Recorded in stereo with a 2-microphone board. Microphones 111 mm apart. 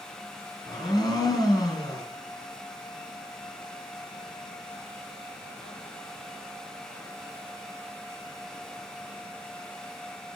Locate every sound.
0.7 s a blender: 35° left (ahead or behind), 3 m